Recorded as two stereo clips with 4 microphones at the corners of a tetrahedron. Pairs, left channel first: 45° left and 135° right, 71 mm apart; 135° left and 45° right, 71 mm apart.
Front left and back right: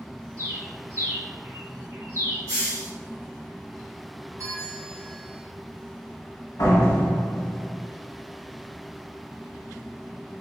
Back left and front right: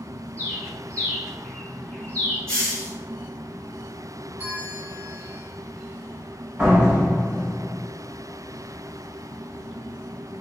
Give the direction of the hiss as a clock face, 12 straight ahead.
5 o'clock.